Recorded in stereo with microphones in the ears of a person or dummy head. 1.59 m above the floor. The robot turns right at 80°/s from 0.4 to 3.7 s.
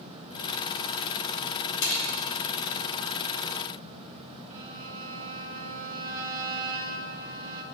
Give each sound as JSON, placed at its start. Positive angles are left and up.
{"t": 1.8, "sound": "a snare drum", "side_deg": 70, "distance_m": 4.5}
{"t": 4.5, "sound": "a violin", "side_deg": -45, "distance_m": 1.4}